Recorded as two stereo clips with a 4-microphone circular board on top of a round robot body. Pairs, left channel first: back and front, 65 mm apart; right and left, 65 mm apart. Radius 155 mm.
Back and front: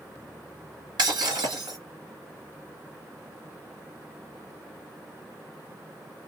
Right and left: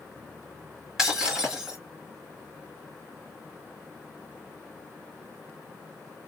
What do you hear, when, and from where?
1.0 s breaking glass: 5° left, 2.5 m